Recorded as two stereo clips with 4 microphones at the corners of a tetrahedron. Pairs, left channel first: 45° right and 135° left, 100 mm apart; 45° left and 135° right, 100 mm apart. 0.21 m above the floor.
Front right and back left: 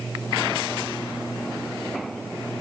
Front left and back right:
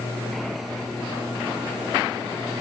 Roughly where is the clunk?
I don't hear a clunk.